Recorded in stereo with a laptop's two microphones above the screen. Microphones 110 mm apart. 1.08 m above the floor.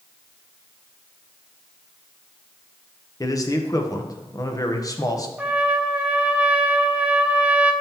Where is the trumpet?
10° right (ahead or behind), 0.7 m.